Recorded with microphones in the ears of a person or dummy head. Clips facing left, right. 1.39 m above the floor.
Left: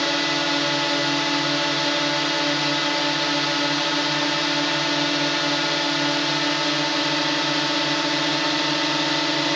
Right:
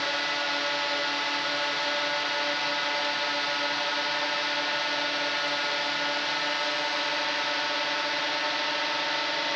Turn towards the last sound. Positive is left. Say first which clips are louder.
# left 9 dB
turn(degrees=60)  # may be behind; listen again after turning